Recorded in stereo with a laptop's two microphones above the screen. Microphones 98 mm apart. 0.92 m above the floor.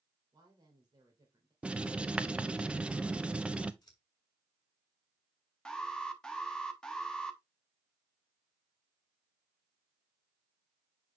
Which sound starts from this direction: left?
Scissors, at 3.8 s.